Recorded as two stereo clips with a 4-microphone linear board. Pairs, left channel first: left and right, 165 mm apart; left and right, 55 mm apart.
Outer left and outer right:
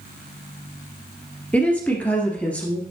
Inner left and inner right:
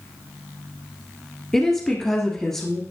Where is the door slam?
I don't hear a door slam.